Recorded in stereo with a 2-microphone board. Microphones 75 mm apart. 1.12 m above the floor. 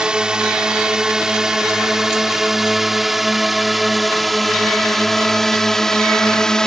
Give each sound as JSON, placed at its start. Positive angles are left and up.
{"t": 0.0, "sound": "a drone", "side_deg": -10}